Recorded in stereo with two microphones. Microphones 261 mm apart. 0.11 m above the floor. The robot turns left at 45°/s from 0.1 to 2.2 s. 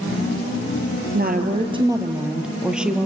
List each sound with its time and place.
1.1 s a woman speaking: 130° right, 2.5 m; by 3.1 s 175° right, 2.5 m